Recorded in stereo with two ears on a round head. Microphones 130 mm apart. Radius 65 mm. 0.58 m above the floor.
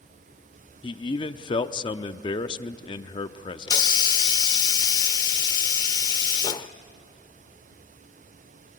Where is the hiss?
30° left (ahead or behind), 0.6 m.